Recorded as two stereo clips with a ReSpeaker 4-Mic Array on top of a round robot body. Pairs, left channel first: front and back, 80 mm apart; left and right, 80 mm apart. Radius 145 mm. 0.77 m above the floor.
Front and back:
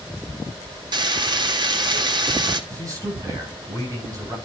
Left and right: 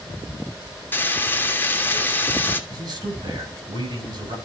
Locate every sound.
0.9 s frying: 155° left, 1.6 m
2.7 s a man speaking: 125° right, 7.5 m